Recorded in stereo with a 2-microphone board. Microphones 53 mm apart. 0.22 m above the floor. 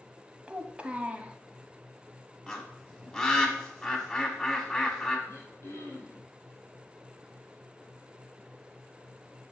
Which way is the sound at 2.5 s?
5° left (ahead or behind).